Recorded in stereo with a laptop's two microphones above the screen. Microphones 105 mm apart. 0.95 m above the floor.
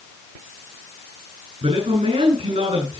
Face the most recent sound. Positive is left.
turn(degrees=-75)  # may be behind; listen again after turning